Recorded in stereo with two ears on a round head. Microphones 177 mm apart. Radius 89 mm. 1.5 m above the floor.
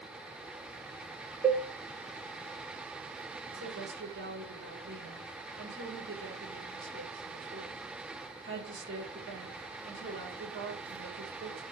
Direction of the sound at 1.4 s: 10° right (ahead or behind).